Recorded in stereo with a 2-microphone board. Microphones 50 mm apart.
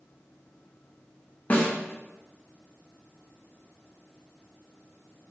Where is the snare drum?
30° left (ahead or behind), 0.6 m.